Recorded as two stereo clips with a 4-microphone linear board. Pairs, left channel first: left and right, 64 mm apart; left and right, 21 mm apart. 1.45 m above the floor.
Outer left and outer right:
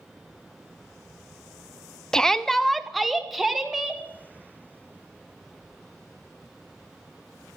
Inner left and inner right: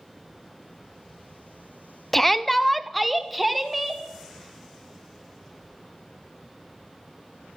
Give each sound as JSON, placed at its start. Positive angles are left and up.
{"t": 2.1, "sound": "a shout", "side_deg": 10, "distance_m": 0.6}